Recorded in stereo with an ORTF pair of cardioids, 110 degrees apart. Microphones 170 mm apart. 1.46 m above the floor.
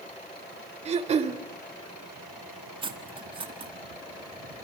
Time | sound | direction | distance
0.8 | throat clearing | 40° right | 2.5 m
2.8 | cutlery clinking | 30° right | 1.9 m